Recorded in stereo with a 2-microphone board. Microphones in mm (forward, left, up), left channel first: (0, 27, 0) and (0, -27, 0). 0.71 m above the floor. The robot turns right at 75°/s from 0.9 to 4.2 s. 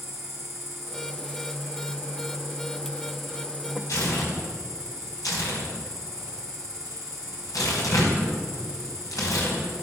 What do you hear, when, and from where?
0.0 s an insect: 175° right, 3 m; by 9.8 s 75° left, 3 m
3.9 s tearing paper: 65° left (ahead or behind), 4 m; by 9.6 s 85° left, 4 m